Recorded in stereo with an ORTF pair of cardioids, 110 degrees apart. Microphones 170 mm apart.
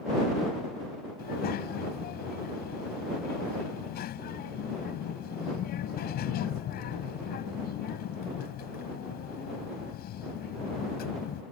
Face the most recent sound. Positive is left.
turn(degrees=65)